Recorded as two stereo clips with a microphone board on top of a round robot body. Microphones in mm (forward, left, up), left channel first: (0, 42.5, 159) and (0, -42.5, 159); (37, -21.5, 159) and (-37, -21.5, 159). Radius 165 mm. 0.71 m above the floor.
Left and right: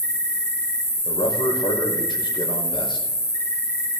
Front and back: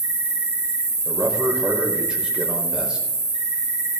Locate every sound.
0.0 s an insect: 155° left, 1.3 m
1.1 s a man speaking: 105° left, 4.5 m